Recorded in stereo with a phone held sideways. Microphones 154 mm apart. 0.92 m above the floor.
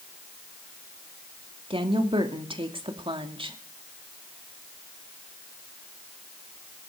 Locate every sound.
1.7 s a woman speaking: 35° right (ahead or behind), 2 m